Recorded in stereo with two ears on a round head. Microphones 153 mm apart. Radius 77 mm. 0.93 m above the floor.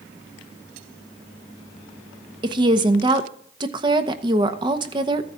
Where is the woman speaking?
25° right (ahead or behind), 0.9 m.